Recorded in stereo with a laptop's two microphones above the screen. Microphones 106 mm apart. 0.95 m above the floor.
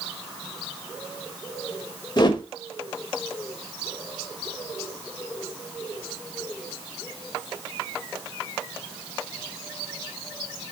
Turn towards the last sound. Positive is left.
turn(degrees=45)  # may be behind; listen again after turning